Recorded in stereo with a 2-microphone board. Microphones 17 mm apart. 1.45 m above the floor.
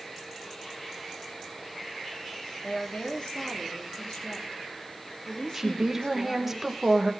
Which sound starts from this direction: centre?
A woman speaking, at 5.5 s.